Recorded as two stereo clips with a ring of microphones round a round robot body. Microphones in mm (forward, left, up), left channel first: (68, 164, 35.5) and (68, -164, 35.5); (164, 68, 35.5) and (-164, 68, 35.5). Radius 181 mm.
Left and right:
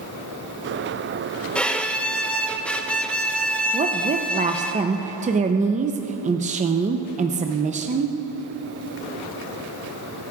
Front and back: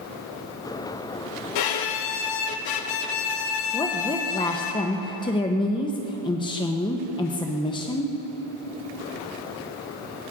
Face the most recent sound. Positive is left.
turn(degrees=-55)